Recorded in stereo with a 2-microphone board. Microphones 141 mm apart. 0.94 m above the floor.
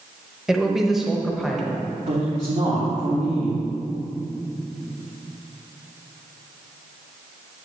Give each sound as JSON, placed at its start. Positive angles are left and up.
{"t": 0.5, "sound": "a man speaking", "side_deg": -5, "distance_m": 1.1}
{"t": 2.1, "sound": "a man speaking", "side_deg": -70, "distance_m": 1.8}